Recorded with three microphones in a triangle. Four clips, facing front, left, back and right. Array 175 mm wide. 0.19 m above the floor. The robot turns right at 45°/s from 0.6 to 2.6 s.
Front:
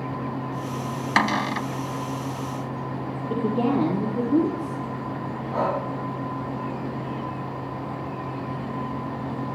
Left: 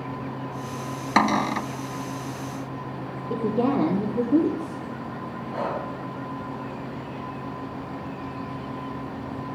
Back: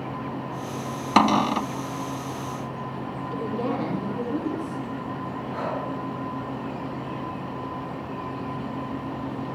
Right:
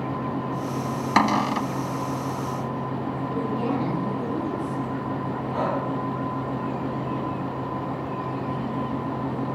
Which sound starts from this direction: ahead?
Breathing, at 5.5 s.